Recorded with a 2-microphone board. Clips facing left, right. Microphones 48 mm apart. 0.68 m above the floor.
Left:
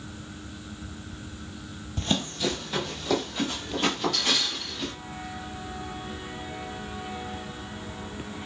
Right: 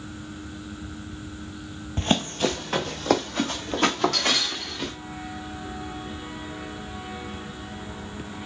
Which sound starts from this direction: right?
Running footsteps, at 2.0 s.